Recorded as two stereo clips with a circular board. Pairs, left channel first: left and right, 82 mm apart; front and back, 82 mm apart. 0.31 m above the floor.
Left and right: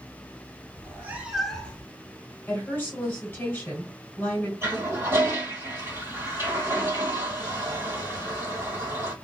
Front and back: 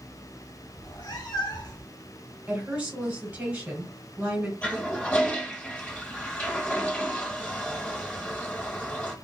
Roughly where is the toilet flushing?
Ahead right.